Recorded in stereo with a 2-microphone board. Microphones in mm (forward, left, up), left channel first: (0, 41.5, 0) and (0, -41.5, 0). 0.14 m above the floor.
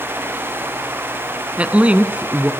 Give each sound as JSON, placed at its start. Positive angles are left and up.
{"t": 1.6, "sound": "a woman speaking", "side_deg": -15, "distance_m": 1.1}